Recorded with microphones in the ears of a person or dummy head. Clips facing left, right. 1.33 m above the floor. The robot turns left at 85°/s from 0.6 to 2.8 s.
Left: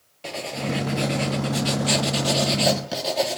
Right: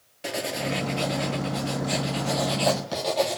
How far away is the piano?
I don't hear a piano.